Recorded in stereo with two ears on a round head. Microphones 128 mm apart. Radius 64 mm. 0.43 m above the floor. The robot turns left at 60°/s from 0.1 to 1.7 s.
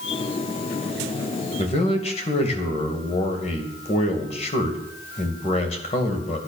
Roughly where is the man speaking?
Left.